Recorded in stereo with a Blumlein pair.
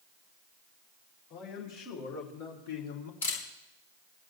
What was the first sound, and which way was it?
A man speaking, 40° left.